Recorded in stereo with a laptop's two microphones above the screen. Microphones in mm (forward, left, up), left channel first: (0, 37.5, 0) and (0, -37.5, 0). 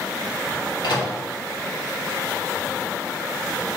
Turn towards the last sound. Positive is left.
turn(degrees=75)  # may be behind; listen again after turning